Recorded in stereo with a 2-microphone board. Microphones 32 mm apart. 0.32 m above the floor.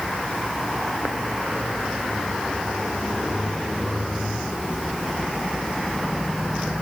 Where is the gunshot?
No gunshot in this recording.